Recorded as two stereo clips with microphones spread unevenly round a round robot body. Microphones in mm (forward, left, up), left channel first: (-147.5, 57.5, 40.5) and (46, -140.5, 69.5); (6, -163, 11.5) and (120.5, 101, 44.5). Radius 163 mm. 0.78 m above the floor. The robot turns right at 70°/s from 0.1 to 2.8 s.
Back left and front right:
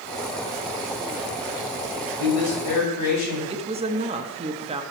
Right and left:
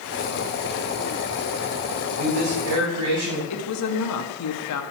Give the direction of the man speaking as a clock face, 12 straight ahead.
10 o'clock.